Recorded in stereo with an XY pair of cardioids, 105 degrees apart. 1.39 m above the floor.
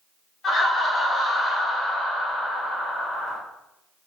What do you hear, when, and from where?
0.4 s laughter: 40° left, 1.3 m